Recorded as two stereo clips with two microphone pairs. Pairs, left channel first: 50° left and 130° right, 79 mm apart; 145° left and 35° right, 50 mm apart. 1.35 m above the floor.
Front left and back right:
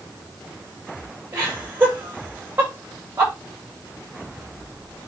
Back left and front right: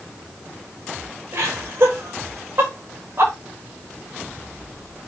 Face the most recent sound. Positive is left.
turn(degrees=-65)